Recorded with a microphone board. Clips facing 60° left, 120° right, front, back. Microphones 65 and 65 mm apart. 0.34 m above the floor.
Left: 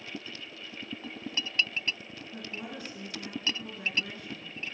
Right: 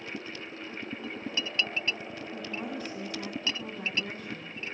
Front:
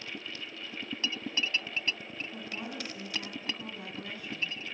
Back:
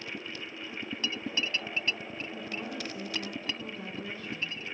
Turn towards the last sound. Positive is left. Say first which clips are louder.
# right 3 dB, back 2 dB
turn(degrees=-75)